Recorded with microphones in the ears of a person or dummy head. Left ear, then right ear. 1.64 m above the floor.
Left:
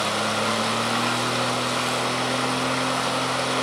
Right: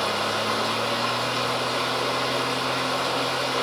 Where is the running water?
60° left (ahead or behind), 3 m.